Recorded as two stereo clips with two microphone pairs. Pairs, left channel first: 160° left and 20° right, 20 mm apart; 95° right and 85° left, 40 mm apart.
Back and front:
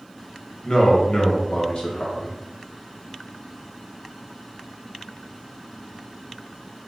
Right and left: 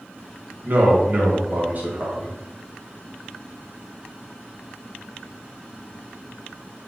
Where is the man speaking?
125° left, 1.2 m.